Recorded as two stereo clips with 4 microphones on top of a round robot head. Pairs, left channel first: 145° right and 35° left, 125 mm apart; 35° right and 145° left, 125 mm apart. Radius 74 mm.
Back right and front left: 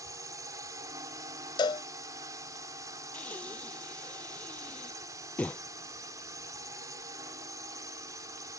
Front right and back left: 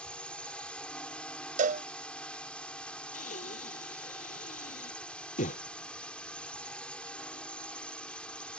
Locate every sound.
0.0 s a drone: 35° left
1.6 s a cowbell: 160° left
3.1 s breathing: 65° right